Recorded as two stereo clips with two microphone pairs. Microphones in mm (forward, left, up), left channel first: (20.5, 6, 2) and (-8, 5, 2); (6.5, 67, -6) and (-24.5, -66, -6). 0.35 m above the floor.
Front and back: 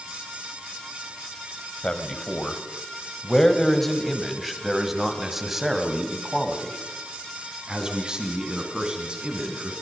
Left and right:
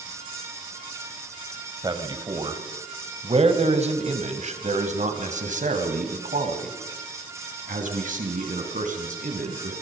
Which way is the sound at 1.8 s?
50° right.